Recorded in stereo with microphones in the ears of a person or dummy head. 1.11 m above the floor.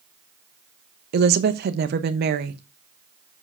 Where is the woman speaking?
55° right (ahead or behind), 0.9 m.